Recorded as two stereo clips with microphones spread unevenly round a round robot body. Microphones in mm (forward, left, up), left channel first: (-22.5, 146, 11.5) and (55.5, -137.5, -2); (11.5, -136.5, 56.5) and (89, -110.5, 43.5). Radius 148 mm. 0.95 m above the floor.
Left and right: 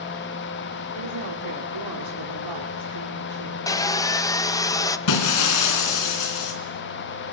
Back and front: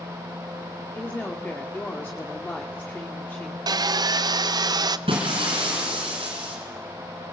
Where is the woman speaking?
95° right, 2 m.